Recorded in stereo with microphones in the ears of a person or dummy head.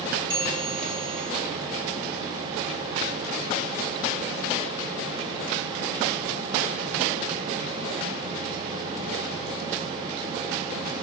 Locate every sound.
0.3 s a bell: 25° right (ahead or behind), 4 m